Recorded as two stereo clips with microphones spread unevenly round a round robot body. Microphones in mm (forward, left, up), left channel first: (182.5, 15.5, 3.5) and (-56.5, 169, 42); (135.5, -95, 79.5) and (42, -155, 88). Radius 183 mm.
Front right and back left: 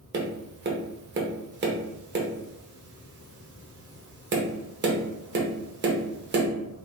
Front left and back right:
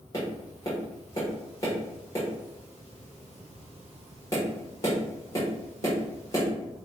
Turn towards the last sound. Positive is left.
turn(degrees=95)